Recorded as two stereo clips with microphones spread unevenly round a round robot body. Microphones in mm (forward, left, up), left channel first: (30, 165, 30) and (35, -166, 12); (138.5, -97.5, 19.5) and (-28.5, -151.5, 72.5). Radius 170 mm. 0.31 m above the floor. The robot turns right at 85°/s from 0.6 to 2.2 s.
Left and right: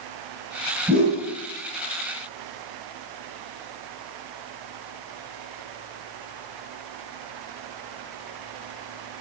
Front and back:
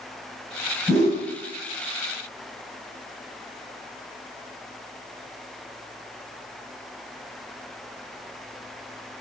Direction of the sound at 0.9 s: 45° right.